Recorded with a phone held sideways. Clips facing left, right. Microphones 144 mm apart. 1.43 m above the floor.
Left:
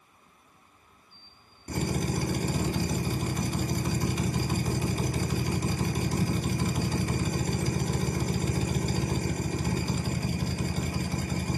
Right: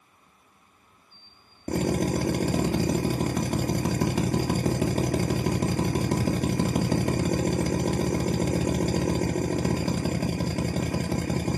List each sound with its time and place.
1.7 s a drill: 80° right, 1.9 m